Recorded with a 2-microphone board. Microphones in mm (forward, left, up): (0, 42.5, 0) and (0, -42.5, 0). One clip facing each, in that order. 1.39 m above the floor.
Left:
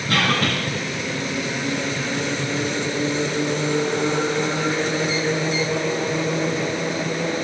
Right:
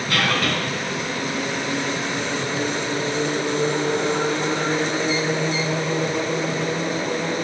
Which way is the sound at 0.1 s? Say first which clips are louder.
Left 2 dB; 50° left (ahead or behind).